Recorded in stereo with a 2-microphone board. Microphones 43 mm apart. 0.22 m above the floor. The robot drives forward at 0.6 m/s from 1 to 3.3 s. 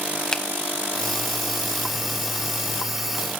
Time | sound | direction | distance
0.3 | a finger snap | 15° left (ahead or behind) | 0.8 m